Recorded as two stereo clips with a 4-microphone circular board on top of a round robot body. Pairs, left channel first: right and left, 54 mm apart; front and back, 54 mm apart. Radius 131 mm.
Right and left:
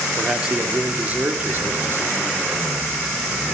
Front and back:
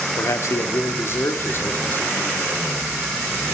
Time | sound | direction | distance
0.2 | a man speaking | 10° left | 1.7 m